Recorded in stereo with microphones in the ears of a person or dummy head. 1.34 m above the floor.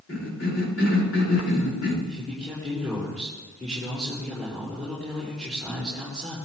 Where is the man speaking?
10° left (ahead or behind), 8.5 m.